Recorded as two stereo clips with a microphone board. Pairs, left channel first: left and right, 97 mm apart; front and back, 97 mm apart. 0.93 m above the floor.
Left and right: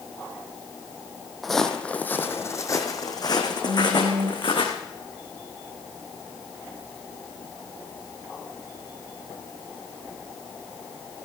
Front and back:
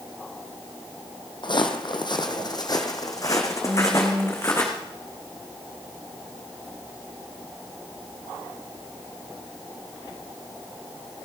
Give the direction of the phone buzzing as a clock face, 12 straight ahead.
4 o'clock.